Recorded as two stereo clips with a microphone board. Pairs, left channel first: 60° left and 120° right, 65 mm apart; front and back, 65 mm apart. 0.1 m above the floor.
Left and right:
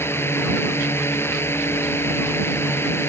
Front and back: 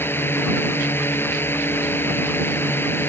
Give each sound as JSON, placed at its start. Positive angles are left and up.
{"t": 0.0, "sound": "a drone", "azimuth_deg": 35}